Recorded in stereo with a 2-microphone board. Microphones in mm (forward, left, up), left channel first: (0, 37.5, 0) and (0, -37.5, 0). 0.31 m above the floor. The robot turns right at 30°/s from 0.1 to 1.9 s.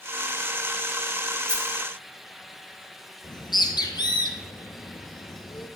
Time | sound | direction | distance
1.5 | a dropped coin | 15° right (ahead or behind) | 0.9 m
3.2 | a bird | 75° left (ahead or behind) | 1.7 m